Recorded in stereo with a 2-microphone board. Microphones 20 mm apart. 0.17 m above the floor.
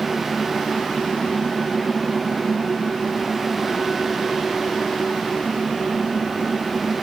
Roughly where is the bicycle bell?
No bicycle bell in this recording.